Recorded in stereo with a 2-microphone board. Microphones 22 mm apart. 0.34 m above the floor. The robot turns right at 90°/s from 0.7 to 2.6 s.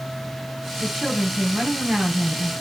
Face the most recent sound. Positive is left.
turn(degrees=15)